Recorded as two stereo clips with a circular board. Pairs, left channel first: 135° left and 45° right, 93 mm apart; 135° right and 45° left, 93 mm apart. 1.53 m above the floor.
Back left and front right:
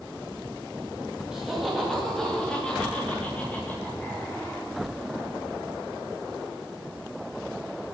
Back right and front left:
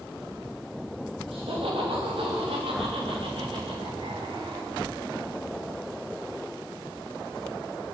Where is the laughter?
40° left, 3 m; by 4.7 s 70° left, 5 m.